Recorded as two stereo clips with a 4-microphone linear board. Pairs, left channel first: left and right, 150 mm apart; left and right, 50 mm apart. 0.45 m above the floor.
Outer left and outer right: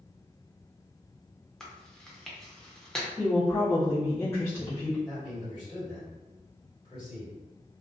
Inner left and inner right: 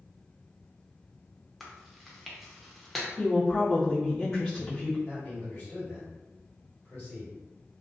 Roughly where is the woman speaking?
Centre.